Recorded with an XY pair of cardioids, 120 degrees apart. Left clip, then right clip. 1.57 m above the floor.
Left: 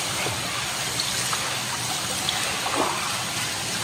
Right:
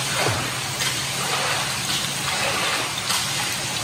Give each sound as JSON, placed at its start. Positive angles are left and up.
{"t": 0.2, "sound": "a gunshot", "azimuth_deg": -35}